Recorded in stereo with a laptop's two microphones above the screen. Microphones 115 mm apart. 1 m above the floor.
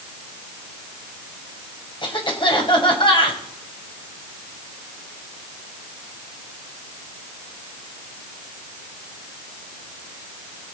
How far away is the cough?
About 5.5 m.